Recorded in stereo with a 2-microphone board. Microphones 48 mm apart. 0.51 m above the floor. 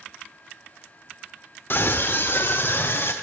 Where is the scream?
50° left (ahead or behind), 1.2 m; by 3.1 s 60° left (ahead or behind), 2 m.